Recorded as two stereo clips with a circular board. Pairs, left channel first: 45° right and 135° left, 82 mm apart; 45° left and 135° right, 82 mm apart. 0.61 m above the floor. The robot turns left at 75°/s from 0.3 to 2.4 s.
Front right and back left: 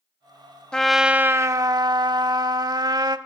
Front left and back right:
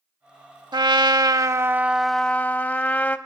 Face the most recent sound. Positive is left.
turn(degrees=115)